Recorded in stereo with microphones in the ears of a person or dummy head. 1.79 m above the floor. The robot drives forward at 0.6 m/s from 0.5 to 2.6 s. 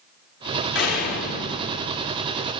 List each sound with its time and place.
0.8 s a door slam: 60° left (ahead or behind), 3 m; by 2.3 s 45° left (ahead or behind), 3.5 m